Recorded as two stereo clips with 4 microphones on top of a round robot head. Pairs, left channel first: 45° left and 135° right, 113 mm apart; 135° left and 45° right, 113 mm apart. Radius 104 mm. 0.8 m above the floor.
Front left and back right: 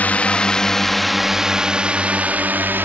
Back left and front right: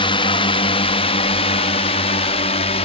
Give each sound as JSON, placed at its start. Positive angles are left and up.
{"t": 0.0, "sound": "a drone", "azimuth_deg": 120}